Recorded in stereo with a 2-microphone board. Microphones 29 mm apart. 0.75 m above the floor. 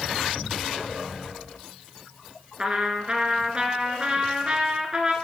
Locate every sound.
2.6 s a trumpet: 30° right (ahead or behind), 1.5 m